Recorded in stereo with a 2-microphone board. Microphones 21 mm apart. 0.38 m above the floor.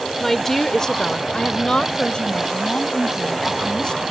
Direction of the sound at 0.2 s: 5° left (ahead or behind).